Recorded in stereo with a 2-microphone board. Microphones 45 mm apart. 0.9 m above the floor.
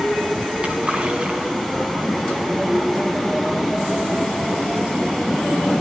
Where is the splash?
25° right (ahead or behind), 7.5 m.